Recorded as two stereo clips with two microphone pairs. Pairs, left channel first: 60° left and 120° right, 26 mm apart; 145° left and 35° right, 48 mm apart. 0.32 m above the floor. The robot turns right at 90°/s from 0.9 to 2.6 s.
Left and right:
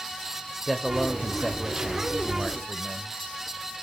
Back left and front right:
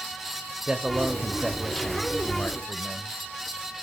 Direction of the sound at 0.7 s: 5° right.